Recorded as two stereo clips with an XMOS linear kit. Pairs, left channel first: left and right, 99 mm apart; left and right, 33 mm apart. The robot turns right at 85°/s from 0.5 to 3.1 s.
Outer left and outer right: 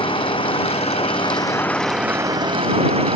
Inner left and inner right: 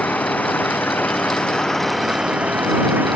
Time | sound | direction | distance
0.0 | an engine running | 60° left | ?